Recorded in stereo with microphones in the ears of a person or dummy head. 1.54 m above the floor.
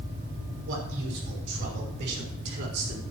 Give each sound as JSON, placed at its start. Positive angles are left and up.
{"t": 0.7, "sound": "a man speaking", "side_deg": -65, "distance_m": 5.5}